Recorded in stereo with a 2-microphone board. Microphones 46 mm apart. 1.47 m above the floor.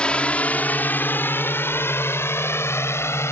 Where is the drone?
20° left (ahead or behind); by 3.3 s 65° left (ahead or behind).